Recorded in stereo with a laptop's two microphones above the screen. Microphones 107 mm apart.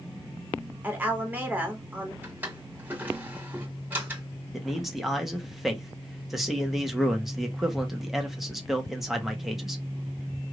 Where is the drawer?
20° right (ahead or behind), 1.8 m.